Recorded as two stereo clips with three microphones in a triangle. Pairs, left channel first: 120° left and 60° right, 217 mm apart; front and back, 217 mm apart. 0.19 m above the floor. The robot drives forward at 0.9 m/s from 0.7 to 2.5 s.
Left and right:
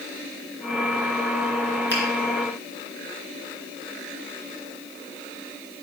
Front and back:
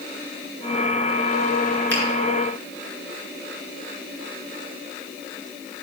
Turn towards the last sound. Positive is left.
turn(degrees=155)